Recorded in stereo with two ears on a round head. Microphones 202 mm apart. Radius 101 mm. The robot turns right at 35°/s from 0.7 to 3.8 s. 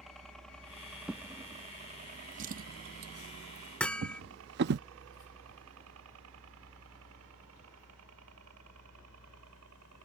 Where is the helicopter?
Centre (ahead or behind); by 10.1 s 75° right (ahead or behind).